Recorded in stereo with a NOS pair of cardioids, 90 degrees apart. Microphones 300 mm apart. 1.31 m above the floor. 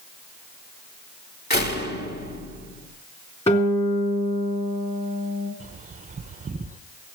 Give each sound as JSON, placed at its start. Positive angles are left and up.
{"t": 1.5, "sound": "a door slam", "azimuth_deg": 35, "distance_m": 2.0}
{"t": 3.5, "sound": "a guitar", "azimuth_deg": 20, "distance_m": 3.5}
{"t": 5.6, "sound": "a bird", "azimuth_deg": -25, "distance_m": 0.7}